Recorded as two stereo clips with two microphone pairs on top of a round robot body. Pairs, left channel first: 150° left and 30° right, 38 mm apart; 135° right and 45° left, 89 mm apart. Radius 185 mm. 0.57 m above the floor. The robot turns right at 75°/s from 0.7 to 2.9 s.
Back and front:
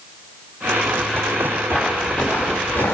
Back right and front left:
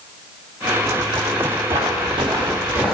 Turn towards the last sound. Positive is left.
turn(degrees=130)